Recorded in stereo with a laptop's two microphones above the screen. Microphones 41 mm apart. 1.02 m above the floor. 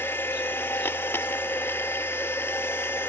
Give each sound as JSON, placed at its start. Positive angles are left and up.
{"t": 0.0, "sound": "a machine running", "side_deg": 65, "distance_m": 0.8}